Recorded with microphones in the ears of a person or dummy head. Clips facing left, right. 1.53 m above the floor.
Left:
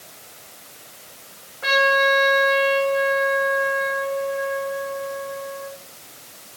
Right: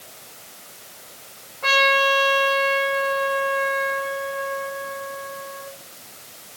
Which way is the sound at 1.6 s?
15° left (ahead or behind).